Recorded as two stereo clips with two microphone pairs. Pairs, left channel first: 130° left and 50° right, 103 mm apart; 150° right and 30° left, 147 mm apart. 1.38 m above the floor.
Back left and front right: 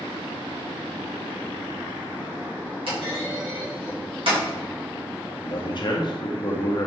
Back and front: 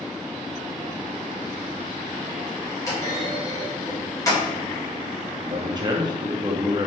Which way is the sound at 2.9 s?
80° right.